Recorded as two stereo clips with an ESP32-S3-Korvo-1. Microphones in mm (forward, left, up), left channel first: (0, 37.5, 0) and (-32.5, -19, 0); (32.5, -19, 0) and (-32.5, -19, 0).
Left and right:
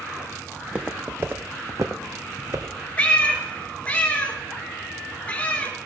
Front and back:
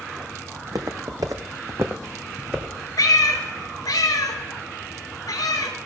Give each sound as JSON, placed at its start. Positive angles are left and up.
{"t": 0.6, "sound": "footsteps", "azimuth_deg": 165, "distance_m": 1.0}
{"t": 3.0, "sound": "a cat meowing", "azimuth_deg": -5, "distance_m": 1.1}